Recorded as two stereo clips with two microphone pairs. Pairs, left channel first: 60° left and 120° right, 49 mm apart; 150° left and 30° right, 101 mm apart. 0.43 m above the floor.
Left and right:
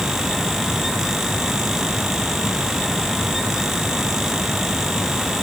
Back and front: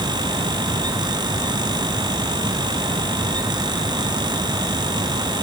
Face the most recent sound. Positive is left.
No sound to turn to.